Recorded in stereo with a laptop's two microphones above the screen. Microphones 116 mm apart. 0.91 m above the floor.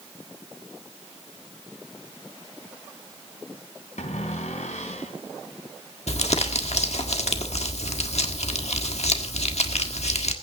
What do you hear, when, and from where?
4.0 s a cupboard door: 85° left, 4 m
6.1 s crumpling: 65° left (ahead or behind), 1.6 m